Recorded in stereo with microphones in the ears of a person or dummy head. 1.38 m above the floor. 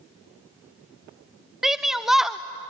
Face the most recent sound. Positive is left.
turn(degrees=0)  # may be behind; listen again after turning